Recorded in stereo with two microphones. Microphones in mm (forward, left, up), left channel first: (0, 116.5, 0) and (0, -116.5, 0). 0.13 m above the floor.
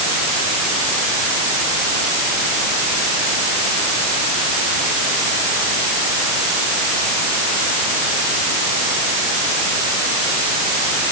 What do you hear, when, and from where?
Only background noise.